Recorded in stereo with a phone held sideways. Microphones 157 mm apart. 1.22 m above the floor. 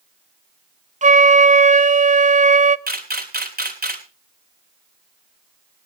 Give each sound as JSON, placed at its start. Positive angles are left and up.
{"t": 1.0, "sound": "a flute", "side_deg": -50, "distance_m": 0.6}
{"t": 2.9, "sound": "a camera shutter", "side_deg": -80, "distance_m": 3.0}